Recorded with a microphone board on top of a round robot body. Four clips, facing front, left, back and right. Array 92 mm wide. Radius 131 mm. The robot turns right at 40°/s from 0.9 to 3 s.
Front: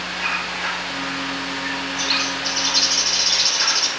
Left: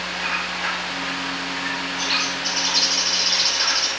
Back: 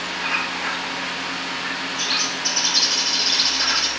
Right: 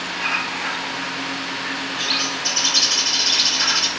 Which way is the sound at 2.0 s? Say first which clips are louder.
Even, front 2 dB; 120° right.